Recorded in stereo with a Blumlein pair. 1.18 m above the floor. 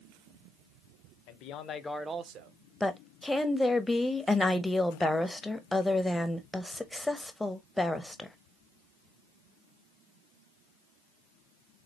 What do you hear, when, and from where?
1.3 s a man speaking: 45° left, 0.9 m; by 2.6 s 50° right, 0.7 m
2.8 s a woman speaking: 5° left, 0.7 m